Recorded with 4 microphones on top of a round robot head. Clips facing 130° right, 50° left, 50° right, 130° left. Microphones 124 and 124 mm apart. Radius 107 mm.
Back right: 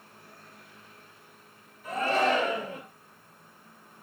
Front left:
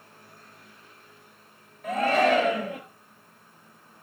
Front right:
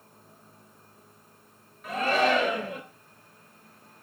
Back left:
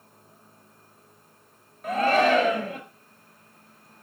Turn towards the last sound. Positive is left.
turn(degrees=90)